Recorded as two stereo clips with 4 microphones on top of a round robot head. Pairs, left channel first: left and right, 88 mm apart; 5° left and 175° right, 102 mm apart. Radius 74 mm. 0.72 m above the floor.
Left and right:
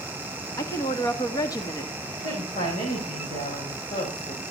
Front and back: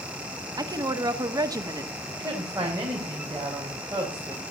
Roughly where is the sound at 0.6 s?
Behind left.